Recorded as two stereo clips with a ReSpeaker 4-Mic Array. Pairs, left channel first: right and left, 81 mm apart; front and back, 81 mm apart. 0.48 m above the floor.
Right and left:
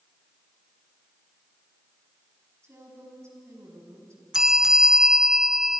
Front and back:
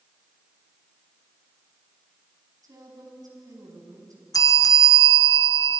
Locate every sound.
2.6 s a woman speaking: 140° left, 4.5 m
4.3 s a bell: 10° left, 0.8 m